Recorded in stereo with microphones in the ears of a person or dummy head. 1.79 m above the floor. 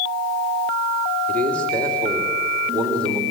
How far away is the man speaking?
About 3.5 m.